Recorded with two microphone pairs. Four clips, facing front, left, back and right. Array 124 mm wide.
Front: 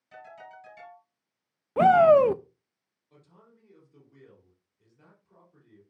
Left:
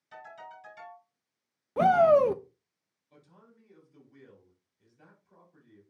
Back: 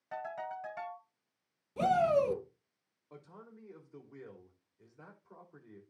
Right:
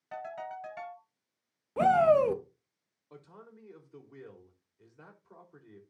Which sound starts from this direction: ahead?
A shout, at 1.8 s.